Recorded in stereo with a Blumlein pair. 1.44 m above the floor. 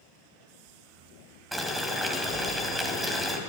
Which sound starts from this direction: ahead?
Boiling, at 1.5 s.